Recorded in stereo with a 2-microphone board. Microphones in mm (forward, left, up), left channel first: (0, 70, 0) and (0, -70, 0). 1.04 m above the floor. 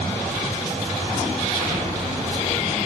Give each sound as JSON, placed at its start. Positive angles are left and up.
{"t": 1.6, "sound": "an explosion", "side_deg": -80, "distance_m": 4.0}